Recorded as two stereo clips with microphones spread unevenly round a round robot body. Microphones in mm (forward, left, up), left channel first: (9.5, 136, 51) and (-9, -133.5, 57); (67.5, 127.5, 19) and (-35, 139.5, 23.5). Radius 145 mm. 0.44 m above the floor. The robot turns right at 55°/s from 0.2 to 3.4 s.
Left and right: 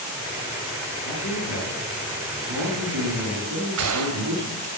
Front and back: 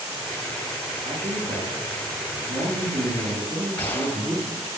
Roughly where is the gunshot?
Right.